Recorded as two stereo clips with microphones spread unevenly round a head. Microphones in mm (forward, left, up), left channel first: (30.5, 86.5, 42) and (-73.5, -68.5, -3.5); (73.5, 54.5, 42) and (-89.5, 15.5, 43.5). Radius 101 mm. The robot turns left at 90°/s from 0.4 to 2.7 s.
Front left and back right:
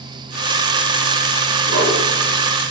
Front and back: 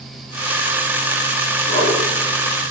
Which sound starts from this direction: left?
A whoosh, at 1.7 s.